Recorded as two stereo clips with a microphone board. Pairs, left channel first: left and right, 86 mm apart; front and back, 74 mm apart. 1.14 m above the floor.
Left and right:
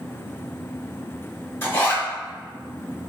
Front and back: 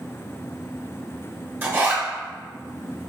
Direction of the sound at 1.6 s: 135° left.